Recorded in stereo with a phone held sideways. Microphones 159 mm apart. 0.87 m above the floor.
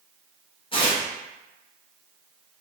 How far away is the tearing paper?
About 0.7 m.